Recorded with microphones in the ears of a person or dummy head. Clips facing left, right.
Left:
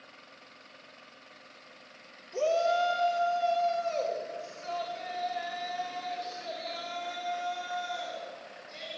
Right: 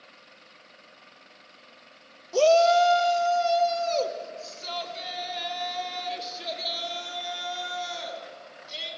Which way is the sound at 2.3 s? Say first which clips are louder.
Right 8 dB; 85° right.